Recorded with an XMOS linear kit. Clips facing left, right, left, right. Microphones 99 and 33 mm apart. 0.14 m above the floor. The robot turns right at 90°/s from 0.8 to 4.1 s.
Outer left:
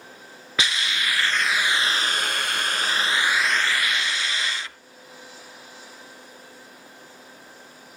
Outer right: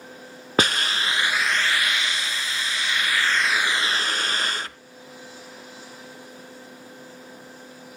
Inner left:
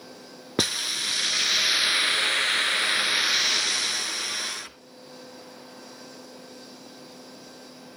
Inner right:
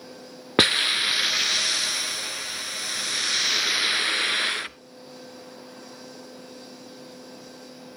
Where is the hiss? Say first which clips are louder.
Outer right 4 dB, inner right 7 dB; 60° right, 0.6 m; by 4.8 s 125° right, 0.6 m.